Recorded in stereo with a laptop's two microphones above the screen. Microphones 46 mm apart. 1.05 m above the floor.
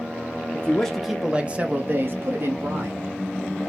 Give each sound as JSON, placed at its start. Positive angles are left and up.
{"t": 0.5, "sound": "a man speaking", "side_deg": 25, "distance_m": 0.6}